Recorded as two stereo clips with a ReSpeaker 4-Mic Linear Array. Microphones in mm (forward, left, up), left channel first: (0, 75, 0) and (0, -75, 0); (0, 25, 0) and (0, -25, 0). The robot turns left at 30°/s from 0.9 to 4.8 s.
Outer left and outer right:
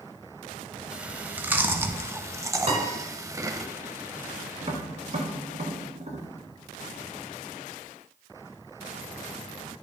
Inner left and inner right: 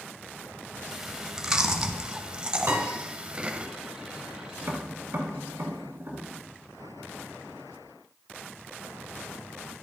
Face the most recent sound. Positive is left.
turn(degrees=-50)  # may be behind; listen again after turning